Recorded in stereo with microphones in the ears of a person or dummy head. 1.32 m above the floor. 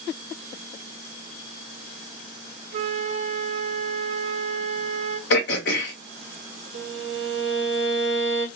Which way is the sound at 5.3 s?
60° left (ahead or behind).